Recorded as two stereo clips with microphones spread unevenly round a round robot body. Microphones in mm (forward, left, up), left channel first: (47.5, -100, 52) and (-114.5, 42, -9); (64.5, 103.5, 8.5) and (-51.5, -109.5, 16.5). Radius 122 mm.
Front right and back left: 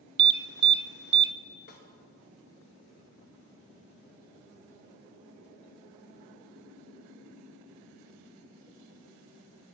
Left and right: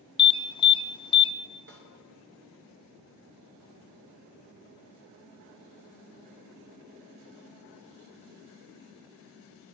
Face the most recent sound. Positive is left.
turn(degrees=-80)